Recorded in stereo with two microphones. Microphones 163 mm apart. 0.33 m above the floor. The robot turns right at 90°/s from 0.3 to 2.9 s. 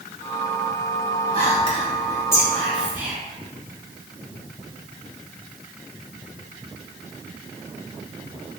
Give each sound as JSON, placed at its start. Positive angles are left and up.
{"t": 1.3, "sound": "whispering", "side_deg": 35, "distance_m": 1.0}